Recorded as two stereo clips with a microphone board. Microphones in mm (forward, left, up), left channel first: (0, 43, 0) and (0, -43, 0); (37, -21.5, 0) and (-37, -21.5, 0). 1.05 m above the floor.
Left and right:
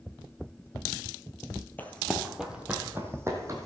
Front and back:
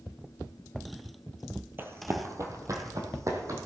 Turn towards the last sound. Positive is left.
turn(degrees=-140)